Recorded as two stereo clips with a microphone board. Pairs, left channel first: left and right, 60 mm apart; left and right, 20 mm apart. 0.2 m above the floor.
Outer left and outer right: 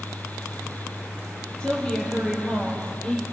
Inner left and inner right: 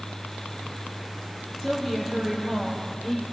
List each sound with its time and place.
1.6 s a woman speaking: 10° left (ahead or behind), 6.5 m